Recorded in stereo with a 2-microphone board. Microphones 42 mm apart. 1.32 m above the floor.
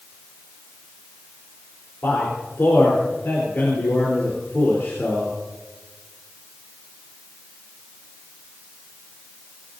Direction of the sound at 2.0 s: 75° left (ahead or behind).